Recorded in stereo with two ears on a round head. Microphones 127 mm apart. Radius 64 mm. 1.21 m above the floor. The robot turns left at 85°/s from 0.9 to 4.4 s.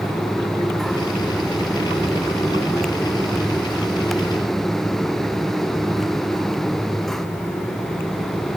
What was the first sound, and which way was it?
Only background noise.